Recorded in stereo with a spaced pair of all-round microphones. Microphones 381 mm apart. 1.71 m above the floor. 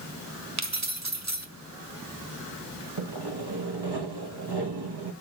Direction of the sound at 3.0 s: 85° right.